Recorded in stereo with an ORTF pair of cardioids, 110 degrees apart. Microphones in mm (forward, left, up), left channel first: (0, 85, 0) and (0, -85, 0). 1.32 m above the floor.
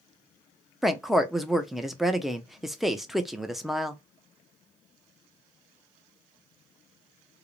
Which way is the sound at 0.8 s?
Straight ahead.